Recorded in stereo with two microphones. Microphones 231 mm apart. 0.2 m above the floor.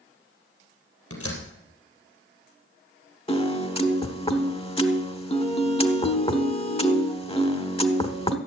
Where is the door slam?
75° left (ahead or behind), 3.5 m.